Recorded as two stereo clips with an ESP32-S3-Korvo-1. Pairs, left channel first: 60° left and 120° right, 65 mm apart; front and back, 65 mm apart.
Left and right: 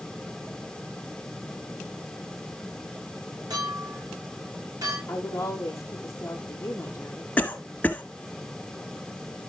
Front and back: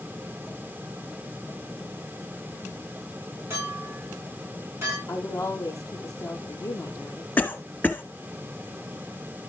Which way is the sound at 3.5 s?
130° right.